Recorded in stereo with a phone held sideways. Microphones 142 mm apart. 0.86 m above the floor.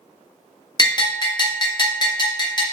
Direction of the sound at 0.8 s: 30° left (ahead or behind).